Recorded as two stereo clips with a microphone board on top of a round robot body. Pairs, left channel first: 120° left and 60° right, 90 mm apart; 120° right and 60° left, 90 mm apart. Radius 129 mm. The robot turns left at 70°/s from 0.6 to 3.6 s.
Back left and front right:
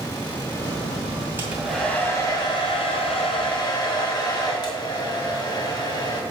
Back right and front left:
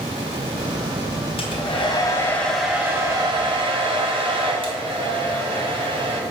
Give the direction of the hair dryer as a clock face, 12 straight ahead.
4 o'clock.